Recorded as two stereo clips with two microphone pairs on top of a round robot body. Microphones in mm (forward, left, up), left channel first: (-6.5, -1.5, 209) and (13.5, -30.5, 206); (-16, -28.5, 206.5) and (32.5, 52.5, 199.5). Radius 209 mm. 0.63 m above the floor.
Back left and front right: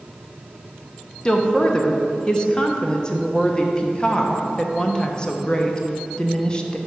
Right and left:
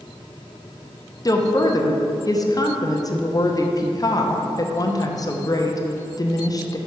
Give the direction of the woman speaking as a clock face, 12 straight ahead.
6 o'clock.